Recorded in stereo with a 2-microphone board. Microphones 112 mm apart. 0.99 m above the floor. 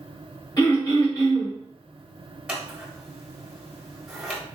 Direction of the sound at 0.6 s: 35° left (ahead or behind).